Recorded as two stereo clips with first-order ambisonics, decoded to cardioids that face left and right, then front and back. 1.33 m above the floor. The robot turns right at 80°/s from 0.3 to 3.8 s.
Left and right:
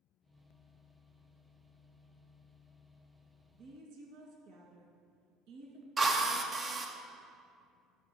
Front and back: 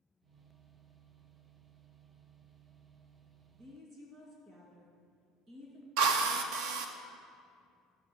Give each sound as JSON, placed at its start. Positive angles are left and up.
{"t": 3.5, "sound": "a woman speaking", "azimuth_deg": -145, "distance_m": 1.9}
{"t": 6.0, "sound": "a drill", "azimuth_deg": -165, "distance_m": 0.6}